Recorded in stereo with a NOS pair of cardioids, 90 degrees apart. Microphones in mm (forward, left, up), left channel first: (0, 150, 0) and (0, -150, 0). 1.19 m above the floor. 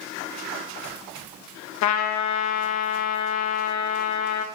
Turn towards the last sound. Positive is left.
turn(degrees=65)